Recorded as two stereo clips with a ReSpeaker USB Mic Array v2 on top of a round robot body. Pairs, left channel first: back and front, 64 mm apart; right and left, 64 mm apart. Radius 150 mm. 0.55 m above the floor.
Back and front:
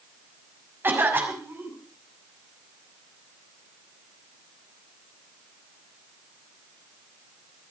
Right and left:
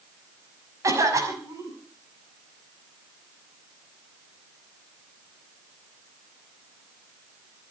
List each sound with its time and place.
0.8 s a cough: 55° left, 6 m